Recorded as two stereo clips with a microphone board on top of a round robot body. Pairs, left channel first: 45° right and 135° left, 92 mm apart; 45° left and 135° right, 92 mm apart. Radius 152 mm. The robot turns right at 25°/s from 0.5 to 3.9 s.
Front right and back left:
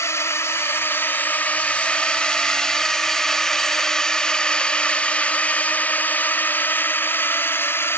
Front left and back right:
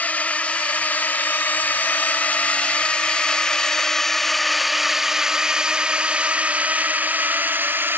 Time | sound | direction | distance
0.0 | a drone | 15° right | ?